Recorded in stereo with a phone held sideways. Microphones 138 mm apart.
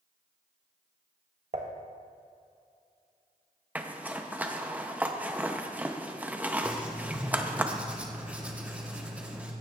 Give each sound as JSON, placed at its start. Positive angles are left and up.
{"t": 1.5, "sound": "dishes clattering", "side_deg": -50, "distance_m": 1.1}
{"t": 3.8, "sound": "a zipper", "side_deg": -10, "distance_m": 0.6}
{"t": 6.6, "sound": "writing", "side_deg": -10, "distance_m": 1.1}